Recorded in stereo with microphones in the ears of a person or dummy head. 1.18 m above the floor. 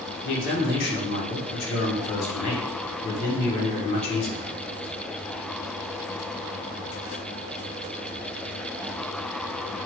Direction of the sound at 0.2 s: 55° left (ahead or behind).